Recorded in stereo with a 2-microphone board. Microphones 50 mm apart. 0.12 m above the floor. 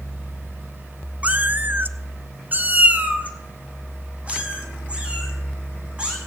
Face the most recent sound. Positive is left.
turn(degrees=-20)  # may be behind; listen again after turning